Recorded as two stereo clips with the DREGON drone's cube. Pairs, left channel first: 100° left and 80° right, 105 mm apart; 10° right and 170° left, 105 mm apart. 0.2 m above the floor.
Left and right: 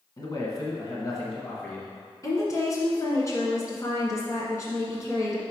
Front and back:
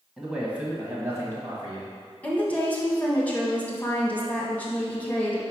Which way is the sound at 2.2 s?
60° left.